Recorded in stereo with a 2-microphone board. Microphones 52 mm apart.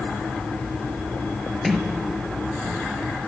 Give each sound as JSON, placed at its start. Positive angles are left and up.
{"t": 1.6, "sound": "a sliding door", "side_deg": 0, "distance_m": 1.8}